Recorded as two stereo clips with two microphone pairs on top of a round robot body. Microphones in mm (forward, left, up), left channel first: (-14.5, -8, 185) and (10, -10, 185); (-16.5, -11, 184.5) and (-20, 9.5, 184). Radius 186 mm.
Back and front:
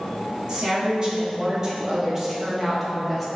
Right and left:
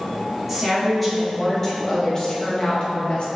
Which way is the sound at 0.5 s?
25° left.